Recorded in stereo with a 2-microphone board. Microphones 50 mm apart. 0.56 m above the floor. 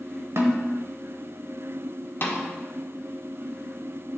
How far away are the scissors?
I don't hear scissors.